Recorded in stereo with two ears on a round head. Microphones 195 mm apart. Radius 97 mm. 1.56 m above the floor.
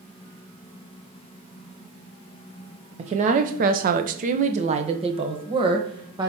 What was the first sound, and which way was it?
A woman speaking, 30° right (ahead or behind).